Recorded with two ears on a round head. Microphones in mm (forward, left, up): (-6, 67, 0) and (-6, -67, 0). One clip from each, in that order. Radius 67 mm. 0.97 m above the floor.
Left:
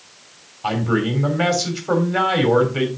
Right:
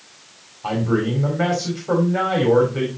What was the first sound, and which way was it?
A man speaking, 55° left (ahead or behind).